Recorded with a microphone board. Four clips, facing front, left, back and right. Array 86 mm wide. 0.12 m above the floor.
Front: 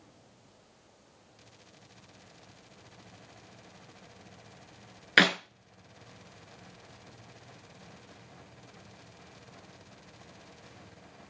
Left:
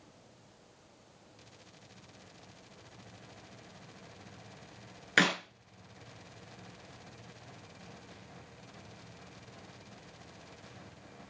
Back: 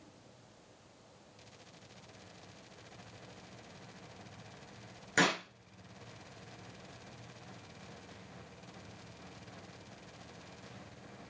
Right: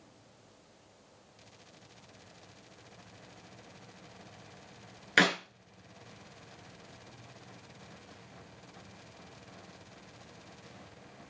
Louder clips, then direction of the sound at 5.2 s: Right 2 dB, front 5 dB; 5° right.